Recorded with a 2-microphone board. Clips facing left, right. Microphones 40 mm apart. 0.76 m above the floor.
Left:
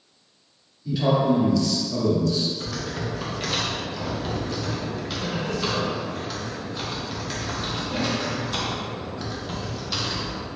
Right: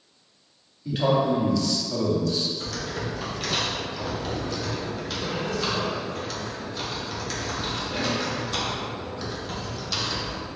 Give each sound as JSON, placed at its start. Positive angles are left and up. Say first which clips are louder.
{"t": 0.8, "sound": "a man speaking", "louder": "left 1 dB", "side_deg": -35, "distance_m": 1.4}
{"t": 2.6, "sound": "typing on a keyboard", "louder": "left 1 dB", "side_deg": 10, "distance_m": 0.8}